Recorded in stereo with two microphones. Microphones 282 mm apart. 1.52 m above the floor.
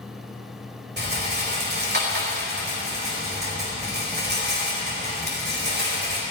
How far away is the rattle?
About 4 m.